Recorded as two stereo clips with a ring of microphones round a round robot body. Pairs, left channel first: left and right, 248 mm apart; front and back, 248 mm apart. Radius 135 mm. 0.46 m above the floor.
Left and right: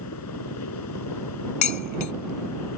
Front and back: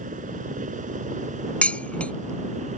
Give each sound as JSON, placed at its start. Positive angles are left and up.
{"t": 0.0, "sound": "a helicopter", "azimuth_deg": 120}
{"t": 1.6, "sound": "dishes clattering", "azimuth_deg": 85}